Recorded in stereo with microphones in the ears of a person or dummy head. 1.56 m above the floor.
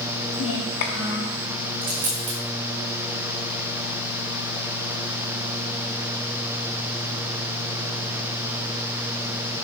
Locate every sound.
0.3 s a child speaking: 55° left (ahead or behind), 0.8 m
1.8 s a dropped coin: 25° right (ahead or behind), 1.8 m